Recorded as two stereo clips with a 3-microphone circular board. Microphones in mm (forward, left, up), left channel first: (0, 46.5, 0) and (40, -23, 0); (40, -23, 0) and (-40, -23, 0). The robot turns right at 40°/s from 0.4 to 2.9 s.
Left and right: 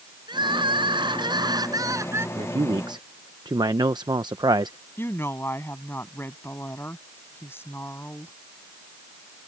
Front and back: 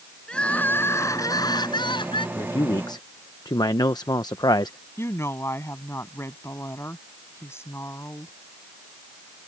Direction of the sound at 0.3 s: 75° right.